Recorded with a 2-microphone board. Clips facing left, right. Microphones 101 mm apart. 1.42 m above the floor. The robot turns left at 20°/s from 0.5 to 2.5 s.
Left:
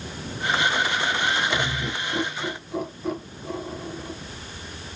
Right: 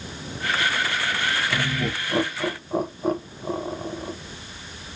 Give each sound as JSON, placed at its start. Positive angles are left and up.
{"t": 1.5, "sound": "laughter", "side_deg": -60, "distance_m": 0.7}